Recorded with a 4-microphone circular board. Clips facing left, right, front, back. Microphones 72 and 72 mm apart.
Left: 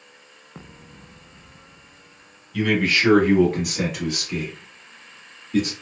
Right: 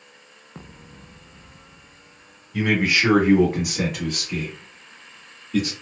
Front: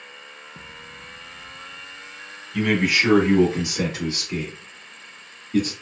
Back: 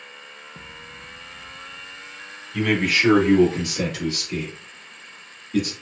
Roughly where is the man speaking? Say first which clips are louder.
Even, front 1 dB; right.